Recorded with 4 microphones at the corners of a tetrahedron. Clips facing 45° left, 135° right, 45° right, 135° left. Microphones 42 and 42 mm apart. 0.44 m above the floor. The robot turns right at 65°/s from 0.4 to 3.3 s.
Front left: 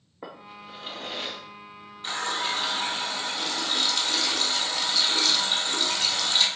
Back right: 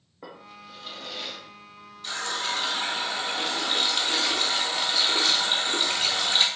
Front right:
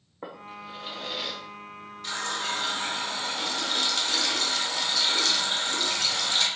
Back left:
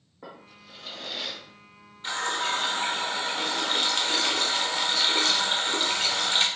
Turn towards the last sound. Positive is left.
turn(degrees=170)